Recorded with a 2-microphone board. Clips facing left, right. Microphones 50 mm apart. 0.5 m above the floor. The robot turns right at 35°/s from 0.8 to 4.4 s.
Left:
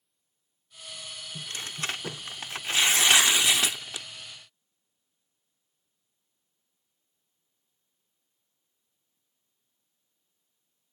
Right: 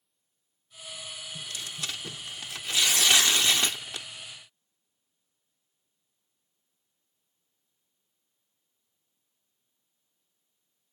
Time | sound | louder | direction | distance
1.4 | tearing paper | left 4 dB | 85° left | ?